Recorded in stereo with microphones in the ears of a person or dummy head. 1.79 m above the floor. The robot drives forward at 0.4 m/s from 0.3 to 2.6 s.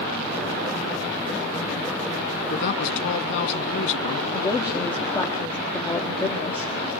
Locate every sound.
2.5 s a woman speaking: 70° left (ahead or behind), 2.0 m
4.3 s a woman speaking: 10° left (ahead or behind), 1.5 m